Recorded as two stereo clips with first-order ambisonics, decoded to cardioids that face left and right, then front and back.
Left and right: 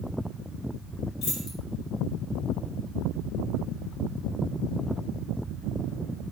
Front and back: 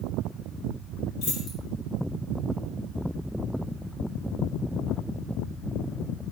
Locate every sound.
1.2 s keys jangling: 45° left, 3 m